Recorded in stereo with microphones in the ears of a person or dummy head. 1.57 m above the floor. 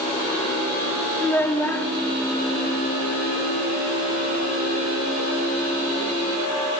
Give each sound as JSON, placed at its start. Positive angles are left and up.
{"t": 1.2, "sound": "a child speaking", "side_deg": 15, "distance_m": 1.3}